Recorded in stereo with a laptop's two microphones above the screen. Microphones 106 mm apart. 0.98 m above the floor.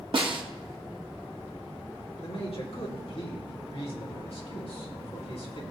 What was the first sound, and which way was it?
A snare drum, 50° right (ahead or behind).